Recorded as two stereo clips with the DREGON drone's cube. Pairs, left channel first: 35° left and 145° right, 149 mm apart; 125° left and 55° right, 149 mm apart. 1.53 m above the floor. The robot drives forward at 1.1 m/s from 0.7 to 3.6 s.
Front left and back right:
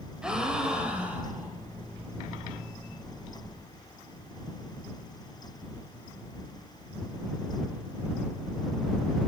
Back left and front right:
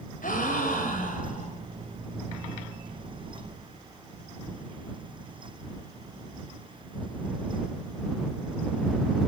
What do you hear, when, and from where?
0.2 s a gasp: 130° left, 4 m; by 1.5 s 140° left, 4.5 m